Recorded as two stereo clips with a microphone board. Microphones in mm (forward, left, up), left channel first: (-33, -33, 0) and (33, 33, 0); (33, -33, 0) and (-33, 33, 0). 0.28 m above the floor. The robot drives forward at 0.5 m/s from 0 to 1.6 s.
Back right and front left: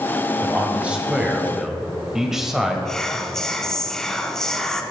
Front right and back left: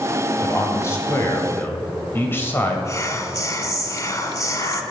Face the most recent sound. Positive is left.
turn(degrees=-55)